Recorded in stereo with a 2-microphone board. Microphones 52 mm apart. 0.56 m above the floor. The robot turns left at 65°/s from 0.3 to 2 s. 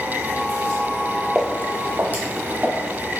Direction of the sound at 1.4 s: 10° right (ahead or behind).